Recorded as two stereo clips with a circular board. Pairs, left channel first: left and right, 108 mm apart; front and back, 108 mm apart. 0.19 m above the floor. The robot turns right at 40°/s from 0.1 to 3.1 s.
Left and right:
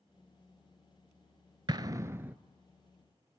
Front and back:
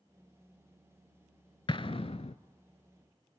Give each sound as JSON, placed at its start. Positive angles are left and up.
{"t": 1.7, "sound": "an explosion", "azimuth_deg": -40, "distance_m": 0.5}